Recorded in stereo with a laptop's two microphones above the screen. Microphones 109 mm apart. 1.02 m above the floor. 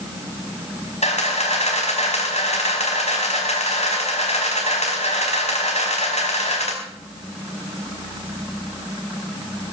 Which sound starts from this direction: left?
A camera shutter, at 1.0 s.